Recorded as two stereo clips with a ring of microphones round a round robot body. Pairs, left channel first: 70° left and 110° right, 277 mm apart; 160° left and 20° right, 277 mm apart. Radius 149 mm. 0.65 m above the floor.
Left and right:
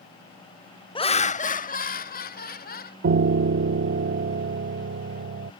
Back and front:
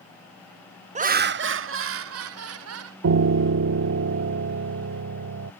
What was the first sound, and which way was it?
Laughter, 15° left.